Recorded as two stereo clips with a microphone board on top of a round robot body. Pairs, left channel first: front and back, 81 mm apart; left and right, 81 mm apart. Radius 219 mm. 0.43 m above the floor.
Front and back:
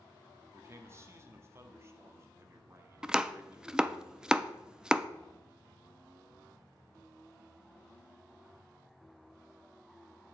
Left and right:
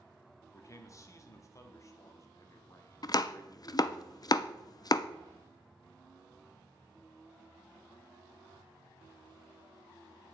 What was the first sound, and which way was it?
A man speaking, 130° left.